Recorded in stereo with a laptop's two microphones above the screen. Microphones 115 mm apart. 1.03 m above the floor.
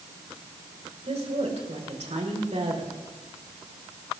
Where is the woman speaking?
75° right (ahead or behind), 4 m; by 3.0 s 70° right (ahead or behind), 2.5 m.